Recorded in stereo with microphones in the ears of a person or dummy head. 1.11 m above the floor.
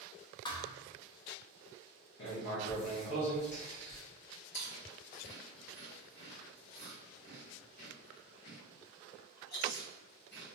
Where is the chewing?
70° left (ahead or behind), 1.5 m.